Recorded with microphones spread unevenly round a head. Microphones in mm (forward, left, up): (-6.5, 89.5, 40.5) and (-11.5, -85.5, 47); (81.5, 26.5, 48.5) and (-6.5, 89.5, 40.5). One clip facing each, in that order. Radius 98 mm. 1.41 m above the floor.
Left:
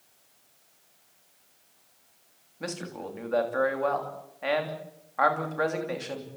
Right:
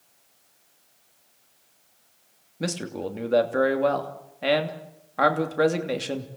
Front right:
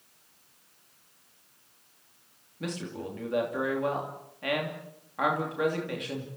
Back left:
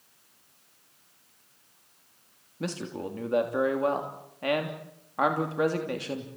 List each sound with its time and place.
2.6 s a man speaking: 150° right, 3 m